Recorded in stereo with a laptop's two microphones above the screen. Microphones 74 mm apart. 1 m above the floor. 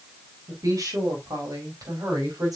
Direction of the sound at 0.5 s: 55° right (ahead or behind).